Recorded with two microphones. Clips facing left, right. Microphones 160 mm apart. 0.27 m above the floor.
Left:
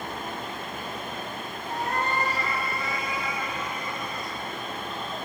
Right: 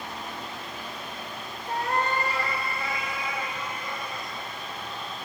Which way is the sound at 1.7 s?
70° right (ahead or behind).